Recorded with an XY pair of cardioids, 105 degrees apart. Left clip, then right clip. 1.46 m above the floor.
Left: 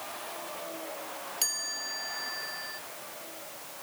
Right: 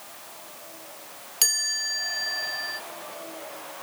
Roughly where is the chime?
Ahead right.